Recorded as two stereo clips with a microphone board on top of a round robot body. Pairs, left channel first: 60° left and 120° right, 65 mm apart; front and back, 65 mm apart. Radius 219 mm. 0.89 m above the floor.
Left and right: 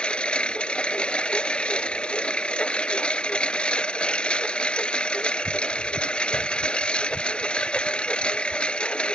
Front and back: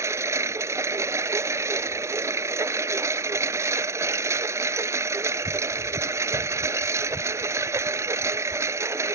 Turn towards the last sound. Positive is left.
turn(degrees=135)